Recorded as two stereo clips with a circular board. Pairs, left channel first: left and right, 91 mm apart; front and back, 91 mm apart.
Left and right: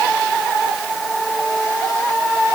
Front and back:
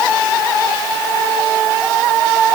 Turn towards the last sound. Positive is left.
No sound to turn to.